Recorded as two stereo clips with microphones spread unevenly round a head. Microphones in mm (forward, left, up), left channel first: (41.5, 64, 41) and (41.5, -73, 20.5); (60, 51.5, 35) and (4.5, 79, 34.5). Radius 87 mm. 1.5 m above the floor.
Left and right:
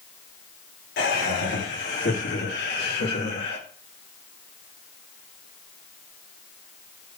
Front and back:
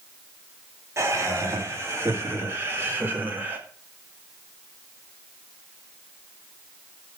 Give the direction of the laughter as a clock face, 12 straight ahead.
8 o'clock.